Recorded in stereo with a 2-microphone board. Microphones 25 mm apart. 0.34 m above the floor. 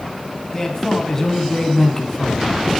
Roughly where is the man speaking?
Centre.